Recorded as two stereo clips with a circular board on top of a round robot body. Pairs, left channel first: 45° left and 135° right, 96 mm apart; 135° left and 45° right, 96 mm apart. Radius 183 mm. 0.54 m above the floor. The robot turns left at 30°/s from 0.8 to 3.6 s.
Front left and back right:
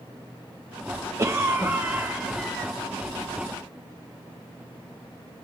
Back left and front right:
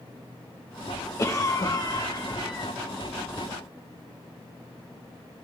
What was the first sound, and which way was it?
A cough, straight behind.